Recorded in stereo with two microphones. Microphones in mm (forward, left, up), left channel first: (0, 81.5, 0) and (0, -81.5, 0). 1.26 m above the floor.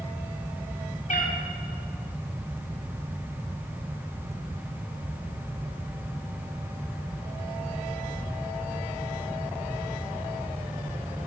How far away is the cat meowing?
About 2 m.